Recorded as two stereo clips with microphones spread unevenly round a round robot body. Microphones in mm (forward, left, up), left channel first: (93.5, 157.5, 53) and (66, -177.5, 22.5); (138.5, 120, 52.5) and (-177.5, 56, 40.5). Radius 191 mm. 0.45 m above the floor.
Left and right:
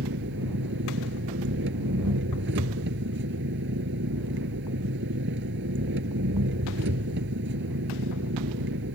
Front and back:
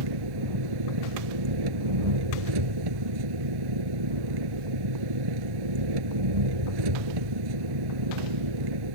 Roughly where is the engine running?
Behind.